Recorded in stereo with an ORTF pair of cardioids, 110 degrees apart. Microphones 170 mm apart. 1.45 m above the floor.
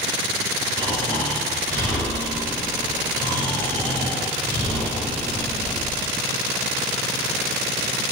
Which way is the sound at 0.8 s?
15° left.